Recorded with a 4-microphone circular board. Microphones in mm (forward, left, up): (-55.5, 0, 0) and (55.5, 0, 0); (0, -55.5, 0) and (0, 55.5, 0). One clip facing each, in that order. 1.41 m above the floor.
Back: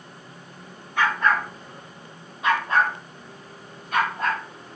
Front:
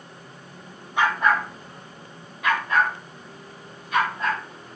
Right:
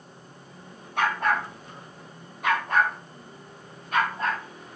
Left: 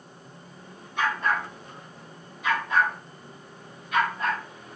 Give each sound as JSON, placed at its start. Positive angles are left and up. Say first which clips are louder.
{"t": 1.0, "sound": "a dog barking", "louder": "front 1 dB, right 2 dB", "azimuth_deg": -70, "distance_m": 2.0}